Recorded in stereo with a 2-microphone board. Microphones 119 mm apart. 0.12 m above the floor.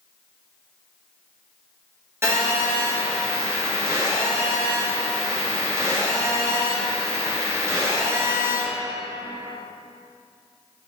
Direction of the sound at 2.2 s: 25° right (ahead or behind).